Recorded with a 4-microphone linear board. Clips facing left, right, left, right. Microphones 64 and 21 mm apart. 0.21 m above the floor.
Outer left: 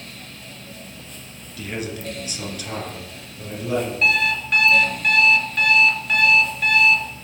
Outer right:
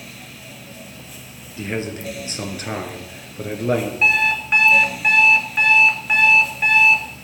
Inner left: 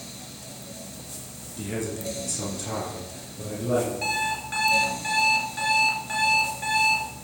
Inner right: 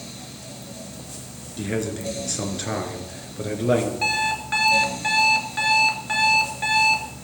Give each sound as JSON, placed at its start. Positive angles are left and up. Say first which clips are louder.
{"t": 1.6, "sound": "a man speaking", "louder": "outer right 3 dB, inner right 4 dB", "side_deg": -25, "distance_m": 2.5}
{"t": 4.0, "sound": "an alarm clock", "louder": "outer right 1 dB, inner right 4 dB", "side_deg": -25, "distance_m": 1.3}